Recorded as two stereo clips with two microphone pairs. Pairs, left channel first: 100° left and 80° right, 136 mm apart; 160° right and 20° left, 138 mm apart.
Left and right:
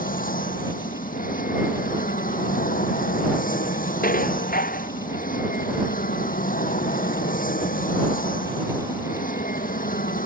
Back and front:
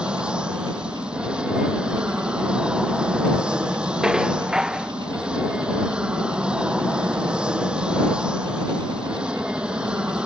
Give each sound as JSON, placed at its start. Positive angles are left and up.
{"t": 0.0, "sound": "an aircraft", "azimuth_deg": 105}
{"t": 4.0, "sound": "dishes clattering", "azimuth_deg": 105}